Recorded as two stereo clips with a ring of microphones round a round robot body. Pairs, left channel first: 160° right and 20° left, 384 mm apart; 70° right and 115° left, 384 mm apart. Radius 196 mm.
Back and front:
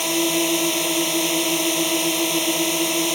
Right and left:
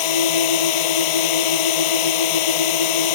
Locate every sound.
0.0 s a drone: 65° right